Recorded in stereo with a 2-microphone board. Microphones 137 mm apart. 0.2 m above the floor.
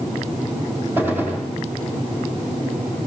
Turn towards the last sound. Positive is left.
turn(degrees=-15)  # may be behind; listen again after turning